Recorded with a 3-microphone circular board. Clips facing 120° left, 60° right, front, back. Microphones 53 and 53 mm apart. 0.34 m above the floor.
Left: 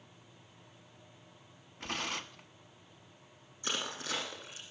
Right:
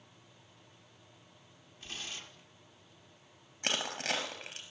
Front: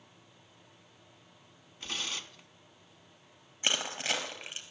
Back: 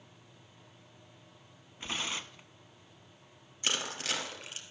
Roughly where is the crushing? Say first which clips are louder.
Right 3 dB, front 2 dB; ahead right.